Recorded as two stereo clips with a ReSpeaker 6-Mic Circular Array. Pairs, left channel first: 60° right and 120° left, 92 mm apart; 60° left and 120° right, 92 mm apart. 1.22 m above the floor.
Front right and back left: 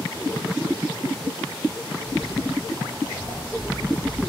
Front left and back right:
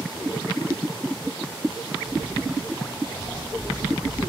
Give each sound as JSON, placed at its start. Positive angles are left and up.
{"t": 2.0, "sound": "footsteps", "azimuth_deg": -100, "distance_m": 4.0}